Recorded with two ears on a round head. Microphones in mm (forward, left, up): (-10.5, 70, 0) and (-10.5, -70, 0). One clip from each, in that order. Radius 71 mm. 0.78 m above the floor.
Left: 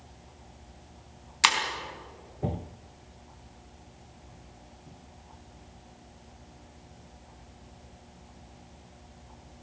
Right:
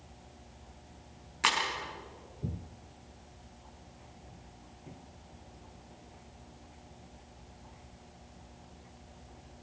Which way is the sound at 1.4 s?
65° left (ahead or behind).